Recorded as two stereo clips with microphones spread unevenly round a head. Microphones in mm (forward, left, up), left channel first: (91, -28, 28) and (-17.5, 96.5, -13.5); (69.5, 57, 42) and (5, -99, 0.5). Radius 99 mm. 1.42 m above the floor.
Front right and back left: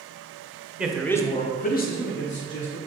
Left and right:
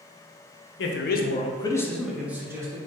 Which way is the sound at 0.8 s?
50° left.